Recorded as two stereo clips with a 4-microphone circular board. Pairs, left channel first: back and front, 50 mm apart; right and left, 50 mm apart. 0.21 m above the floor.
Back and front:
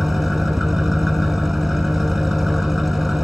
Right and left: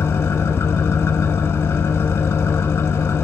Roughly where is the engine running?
Right.